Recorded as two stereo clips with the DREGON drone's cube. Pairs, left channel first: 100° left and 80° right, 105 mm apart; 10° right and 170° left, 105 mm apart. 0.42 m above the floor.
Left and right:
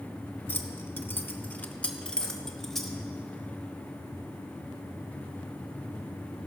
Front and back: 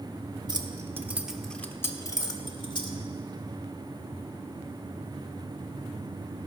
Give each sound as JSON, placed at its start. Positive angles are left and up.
{"t": 0.5, "sound": "keys jangling", "azimuth_deg": 155, "distance_m": 0.8}